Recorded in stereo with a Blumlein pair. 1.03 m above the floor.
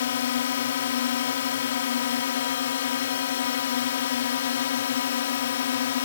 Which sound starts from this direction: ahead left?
A drone, at 0.0 s.